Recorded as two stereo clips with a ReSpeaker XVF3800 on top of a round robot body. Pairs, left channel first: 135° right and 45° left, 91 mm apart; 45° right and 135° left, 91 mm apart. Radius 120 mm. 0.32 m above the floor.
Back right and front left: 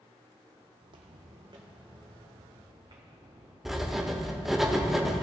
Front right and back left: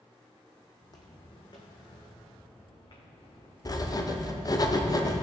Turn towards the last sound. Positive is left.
turn(degrees=-40)